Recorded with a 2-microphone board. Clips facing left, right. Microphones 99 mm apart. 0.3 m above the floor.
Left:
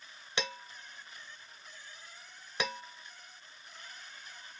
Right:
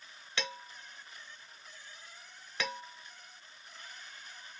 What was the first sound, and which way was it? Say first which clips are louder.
Dishes clattering: left 2 dB; 20° left (ahead or behind).